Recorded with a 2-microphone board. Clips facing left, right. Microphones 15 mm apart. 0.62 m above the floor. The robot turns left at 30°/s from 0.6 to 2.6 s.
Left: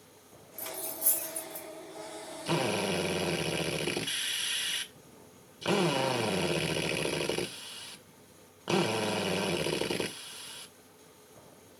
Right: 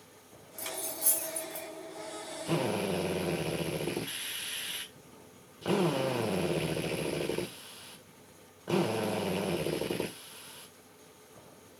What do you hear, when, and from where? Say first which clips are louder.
0.6 s cutlery clinking: right 1 dB; 35° right (ahead or behind), 2.5 m; by 1.7 s 5° right (ahead or behind), 2.5 m
2.5 s a drill: left 1 dB; 45° left (ahead or behind), 1.9 m; by 11.8 s 50° left (ahead or behind), 1.9 m